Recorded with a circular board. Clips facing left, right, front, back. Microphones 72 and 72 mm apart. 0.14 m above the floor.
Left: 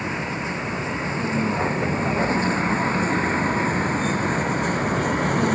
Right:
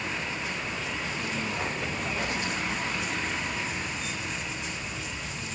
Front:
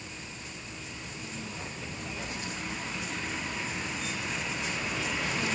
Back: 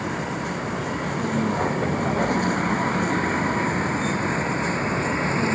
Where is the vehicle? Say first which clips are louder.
Left 6 dB, back 17 dB; 155° left; by 5.6 s 125° left.